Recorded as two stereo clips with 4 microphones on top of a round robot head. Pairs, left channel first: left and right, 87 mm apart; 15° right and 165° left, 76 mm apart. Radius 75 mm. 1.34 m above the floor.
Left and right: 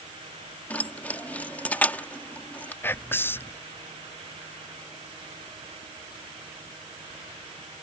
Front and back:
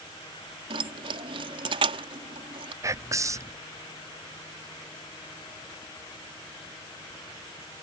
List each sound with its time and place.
0.7 s keys jangling: 165° left
2.8 s whispering: 145° left